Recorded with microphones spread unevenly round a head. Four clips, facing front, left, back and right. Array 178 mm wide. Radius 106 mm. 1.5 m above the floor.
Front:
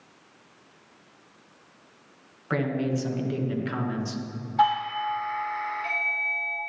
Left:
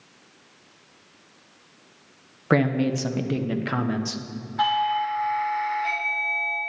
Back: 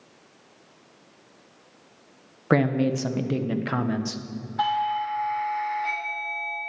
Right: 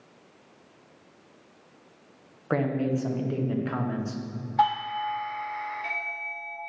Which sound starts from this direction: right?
A doorbell, at 4.6 s.